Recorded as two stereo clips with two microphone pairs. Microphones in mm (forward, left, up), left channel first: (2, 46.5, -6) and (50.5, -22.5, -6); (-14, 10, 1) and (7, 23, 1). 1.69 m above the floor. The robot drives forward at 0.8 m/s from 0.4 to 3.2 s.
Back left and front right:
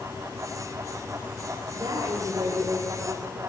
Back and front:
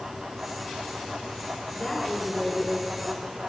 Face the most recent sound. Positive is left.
turn(degrees=-85)